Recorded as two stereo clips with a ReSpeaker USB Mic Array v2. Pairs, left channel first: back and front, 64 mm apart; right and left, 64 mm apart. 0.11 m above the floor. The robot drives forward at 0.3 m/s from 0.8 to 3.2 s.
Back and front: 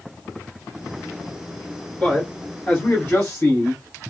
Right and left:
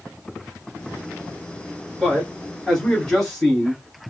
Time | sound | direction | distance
2.0 | a man speaking | 170° right | 1.4 m